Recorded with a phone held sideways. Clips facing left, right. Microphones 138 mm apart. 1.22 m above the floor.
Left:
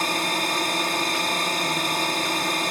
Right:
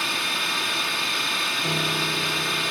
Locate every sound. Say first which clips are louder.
0.0 s a drone: left 5 dB; 45° left (ahead or behind)
1.6 s a piano: left 2 dB; 35° right (ahead or behind)